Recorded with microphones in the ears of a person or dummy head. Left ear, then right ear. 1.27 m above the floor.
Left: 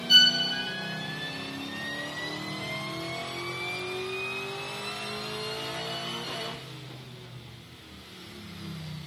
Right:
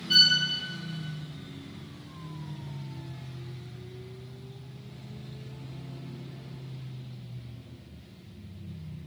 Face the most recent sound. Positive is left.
turn(degrees=80)